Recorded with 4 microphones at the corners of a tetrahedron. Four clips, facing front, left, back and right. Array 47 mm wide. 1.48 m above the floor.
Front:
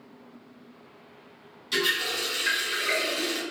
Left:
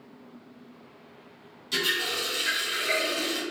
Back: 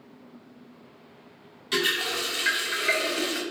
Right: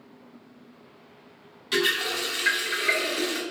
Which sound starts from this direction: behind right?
A running tap, at 1.7 s.